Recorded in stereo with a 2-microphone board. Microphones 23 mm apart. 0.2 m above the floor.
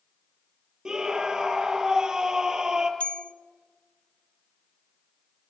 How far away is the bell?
About 0.9 m.